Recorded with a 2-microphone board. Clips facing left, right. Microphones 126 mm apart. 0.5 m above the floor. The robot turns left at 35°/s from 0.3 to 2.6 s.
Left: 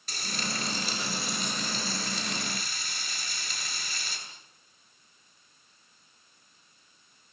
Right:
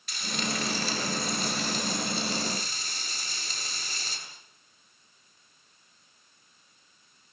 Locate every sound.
0.1 s frying: 40° left, 8.5 m; by 4.2 s 40° right, 8.5 m